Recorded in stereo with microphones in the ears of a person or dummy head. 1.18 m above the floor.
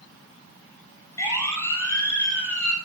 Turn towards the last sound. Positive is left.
turn(degrees=10)  # may be behind; listen again after turning